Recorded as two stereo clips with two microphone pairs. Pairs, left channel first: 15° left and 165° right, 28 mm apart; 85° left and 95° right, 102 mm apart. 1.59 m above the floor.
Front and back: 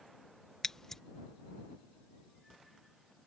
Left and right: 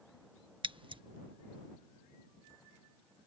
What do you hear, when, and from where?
0.6 s scissors: 55° right